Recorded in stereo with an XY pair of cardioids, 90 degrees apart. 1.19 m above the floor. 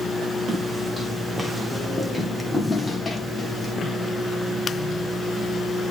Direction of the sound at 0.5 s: 15° right.